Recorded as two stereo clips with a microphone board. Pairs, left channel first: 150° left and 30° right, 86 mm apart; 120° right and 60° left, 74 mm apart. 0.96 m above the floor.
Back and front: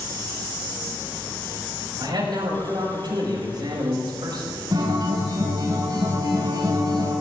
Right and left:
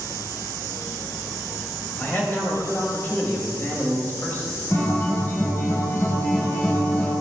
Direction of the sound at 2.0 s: 60° right.